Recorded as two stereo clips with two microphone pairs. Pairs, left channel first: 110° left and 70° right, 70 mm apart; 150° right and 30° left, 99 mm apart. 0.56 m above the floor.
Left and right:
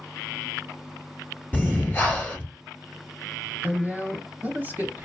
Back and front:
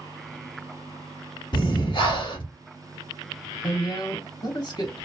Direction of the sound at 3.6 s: 125° right.